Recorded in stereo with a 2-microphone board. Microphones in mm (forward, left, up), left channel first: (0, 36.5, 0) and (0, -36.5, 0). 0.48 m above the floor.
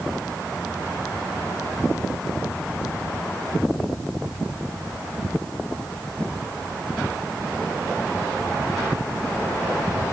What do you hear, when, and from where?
Only background noise.